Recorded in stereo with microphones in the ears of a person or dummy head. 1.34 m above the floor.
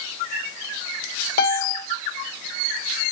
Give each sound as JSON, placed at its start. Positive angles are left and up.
{"t": 1.4, "sound": "a piano", "side_deg": 55, "distance_m": 0.6}